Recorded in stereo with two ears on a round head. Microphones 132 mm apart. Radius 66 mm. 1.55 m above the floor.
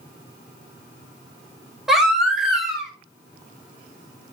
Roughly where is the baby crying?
Centre.